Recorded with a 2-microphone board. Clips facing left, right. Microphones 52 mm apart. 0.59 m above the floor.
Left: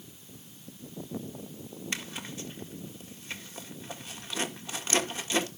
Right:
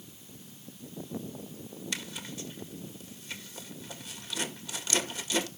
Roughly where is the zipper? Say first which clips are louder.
Left 2 dB; left.